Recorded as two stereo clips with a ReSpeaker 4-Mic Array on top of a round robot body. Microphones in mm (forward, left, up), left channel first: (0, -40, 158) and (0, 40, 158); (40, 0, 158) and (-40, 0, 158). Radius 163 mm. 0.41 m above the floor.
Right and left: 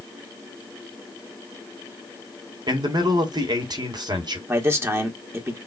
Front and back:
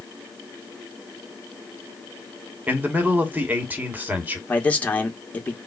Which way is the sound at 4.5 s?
60° left.